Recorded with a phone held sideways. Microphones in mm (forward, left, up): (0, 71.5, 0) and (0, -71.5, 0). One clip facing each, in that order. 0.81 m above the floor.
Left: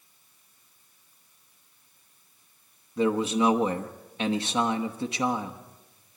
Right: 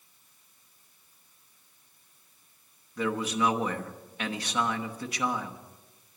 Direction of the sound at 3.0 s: 25° left (ahead or behind).